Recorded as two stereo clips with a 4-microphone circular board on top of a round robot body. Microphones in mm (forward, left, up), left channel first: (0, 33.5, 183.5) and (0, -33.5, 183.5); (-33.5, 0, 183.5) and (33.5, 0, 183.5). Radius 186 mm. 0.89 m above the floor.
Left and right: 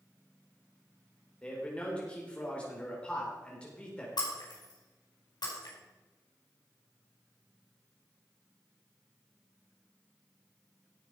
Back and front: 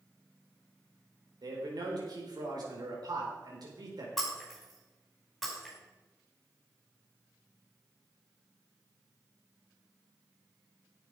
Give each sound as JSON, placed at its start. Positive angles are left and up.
{"t": 1.4, "sound": "a man speaking", "azimuth_deg": 15, "distance_m": 4.5}
{"t": 4.2, "sound": "breaking glass", "azimuth_deg": 90, "distance_m": 5.0}